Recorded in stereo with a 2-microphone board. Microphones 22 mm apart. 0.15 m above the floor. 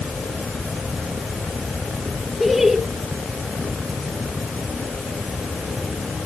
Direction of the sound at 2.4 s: 10° right (ahead or behind).